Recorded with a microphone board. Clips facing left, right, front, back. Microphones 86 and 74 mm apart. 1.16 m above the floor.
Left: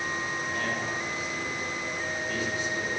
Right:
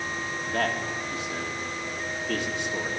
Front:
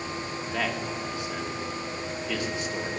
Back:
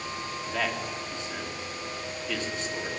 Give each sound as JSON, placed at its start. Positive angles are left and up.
{"t": 0.5, "sound": "a man speaking", "azimuth_deg": -85, "distance_m": 2.0}